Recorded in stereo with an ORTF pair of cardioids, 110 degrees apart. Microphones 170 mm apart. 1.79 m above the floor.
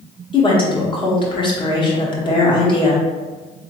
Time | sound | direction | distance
0.3 | a woman speaking | 30° left | 1.5 m